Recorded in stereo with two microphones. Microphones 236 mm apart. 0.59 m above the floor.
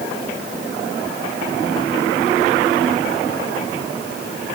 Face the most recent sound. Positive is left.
No sound to turn to.